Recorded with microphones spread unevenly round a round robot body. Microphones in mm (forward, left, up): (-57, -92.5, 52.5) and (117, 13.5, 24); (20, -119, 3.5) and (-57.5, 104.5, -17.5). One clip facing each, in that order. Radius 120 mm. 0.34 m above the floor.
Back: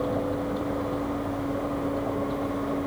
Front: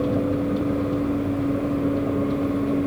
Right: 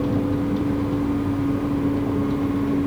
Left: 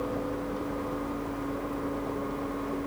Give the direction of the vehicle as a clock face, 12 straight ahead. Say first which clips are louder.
Front 5 dB, right 11 dB; 1 o'clock.